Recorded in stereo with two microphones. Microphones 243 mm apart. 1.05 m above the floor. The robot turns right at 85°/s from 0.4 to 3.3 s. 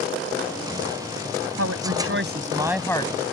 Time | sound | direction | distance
1.6 | a woman speaking | 105° right | ?